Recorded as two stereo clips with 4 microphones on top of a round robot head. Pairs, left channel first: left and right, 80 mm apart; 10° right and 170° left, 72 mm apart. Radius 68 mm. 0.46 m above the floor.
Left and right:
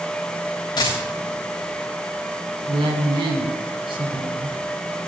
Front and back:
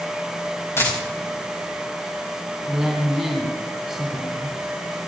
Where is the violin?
No violin in this recording.